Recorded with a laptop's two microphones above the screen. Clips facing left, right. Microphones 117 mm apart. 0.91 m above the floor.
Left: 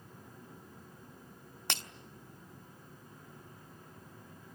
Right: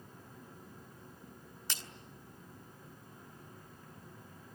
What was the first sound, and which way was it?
Breaking glass, 65° left (ahead or behind).